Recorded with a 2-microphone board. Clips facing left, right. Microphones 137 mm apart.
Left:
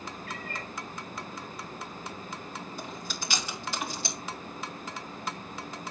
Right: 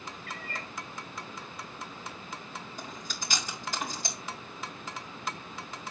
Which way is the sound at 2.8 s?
45° right (ahead or behind).